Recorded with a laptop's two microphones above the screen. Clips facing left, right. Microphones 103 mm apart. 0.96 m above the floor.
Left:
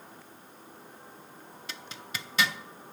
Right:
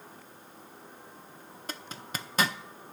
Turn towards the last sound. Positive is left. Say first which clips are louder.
# right 3 dB
turn(degrees=-40)  # may be behind; listen again after turning